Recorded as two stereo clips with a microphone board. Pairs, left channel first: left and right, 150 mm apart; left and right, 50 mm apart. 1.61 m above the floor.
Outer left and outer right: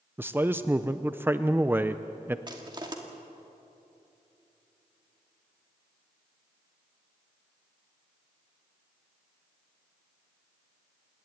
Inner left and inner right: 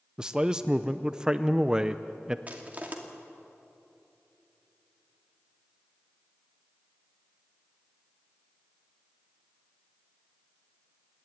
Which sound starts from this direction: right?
Crushing, at 2.5 s.